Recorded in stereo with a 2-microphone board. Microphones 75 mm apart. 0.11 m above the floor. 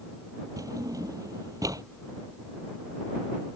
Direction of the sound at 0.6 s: 50° right (ahead or behind).